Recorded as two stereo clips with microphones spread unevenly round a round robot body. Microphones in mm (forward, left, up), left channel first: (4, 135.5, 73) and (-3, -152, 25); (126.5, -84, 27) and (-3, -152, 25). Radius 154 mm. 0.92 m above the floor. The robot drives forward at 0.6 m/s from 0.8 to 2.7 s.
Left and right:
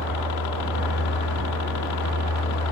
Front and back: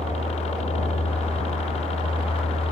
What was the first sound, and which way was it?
A helicopter, 80° left.